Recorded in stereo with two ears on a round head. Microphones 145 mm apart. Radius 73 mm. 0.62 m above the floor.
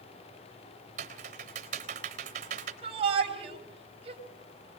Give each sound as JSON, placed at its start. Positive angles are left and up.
{"t": 1.0, "sound": "typing on a keyboard", "side_deg": -50, "distance_m": 3.0}
{"t": 2.8, "sound": "a shout", "side_deg": -35, "distance_m": 3.5}